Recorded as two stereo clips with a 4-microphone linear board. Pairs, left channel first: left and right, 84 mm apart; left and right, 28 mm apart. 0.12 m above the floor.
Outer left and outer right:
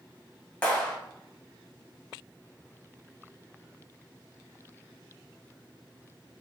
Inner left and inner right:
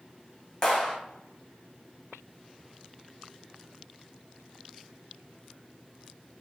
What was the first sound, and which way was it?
A clap, 15° left (ahead or behind).